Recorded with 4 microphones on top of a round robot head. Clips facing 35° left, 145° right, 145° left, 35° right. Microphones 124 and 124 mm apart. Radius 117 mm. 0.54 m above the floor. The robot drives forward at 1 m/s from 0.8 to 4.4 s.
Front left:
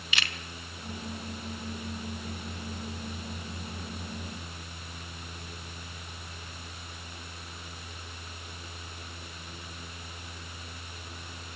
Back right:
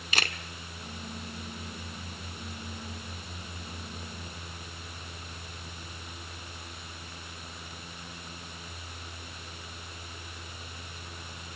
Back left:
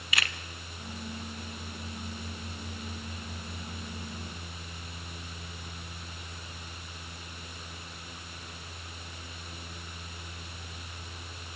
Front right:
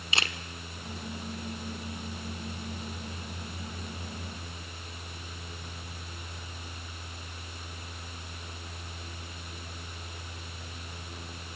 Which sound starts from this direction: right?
A camera shutter, at 0.1 s.